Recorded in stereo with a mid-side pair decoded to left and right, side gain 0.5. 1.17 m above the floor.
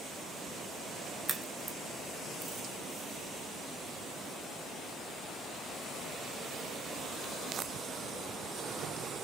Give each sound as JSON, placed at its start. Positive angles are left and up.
{"t": 1.3, "sound": "a crack", "azimuth_deg": -30, "distance_m": 0.7}